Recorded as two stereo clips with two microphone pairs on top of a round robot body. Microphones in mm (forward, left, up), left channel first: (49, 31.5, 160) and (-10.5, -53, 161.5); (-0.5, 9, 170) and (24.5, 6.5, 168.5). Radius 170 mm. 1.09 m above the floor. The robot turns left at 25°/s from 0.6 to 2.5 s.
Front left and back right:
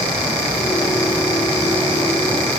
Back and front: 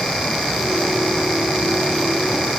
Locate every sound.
Only background noise.